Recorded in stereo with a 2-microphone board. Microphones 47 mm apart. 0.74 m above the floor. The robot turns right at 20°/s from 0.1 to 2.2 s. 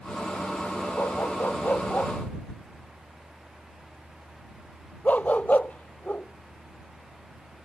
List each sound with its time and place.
1.0 s a dog barking: 60° left (ahead or behind); by 7.7 s 35° left (ahead or behind)